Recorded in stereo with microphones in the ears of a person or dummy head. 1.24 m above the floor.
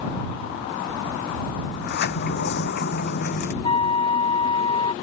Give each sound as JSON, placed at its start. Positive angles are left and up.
{"t": 1.7, "sound": "a sliding door", "side_deg": 50}
{"t": 3.6, "sound": "a flute", "side_deg": 35}